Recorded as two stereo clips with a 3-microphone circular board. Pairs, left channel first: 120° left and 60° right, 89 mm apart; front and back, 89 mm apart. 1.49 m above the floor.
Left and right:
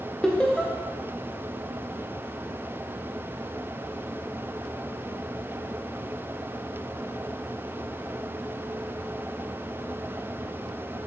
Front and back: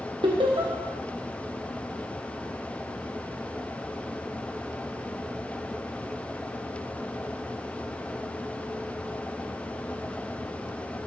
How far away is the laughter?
About 1.1 m.